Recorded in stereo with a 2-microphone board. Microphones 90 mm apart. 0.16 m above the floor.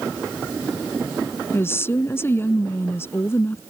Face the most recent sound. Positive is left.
turn(degrees=30)  # may be behind; listen again after turning